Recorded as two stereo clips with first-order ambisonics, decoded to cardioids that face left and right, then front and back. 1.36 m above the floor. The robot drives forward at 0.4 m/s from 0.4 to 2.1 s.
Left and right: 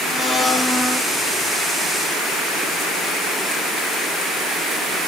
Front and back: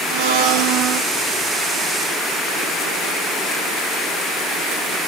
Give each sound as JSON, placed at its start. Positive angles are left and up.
{"t": 0.1, "sound": "a blender", "azimuth_deg": 165, "distance_m": 1.6}